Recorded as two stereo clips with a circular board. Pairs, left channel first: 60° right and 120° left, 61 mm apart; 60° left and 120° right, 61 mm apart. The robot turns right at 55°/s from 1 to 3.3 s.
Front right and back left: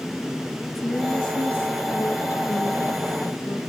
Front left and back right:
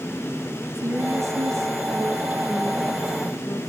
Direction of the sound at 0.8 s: 140° right.